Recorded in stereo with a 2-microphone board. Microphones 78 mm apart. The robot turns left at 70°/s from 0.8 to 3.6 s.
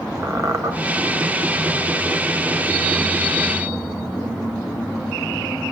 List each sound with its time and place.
0.2 s a squeak: 40° right (ahead or behind), 1.3 m